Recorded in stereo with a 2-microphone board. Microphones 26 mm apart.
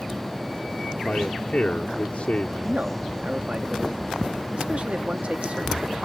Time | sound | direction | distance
1.1 | a man speaking | 55° left (ahead or behind) | ?
2.6 | a man speaking | 55° right (ahead or behind) | ?